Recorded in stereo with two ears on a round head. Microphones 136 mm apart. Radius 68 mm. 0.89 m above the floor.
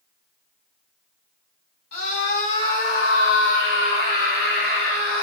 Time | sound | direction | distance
1.9 | a scream | 75° left (ahead or behind) | 8 m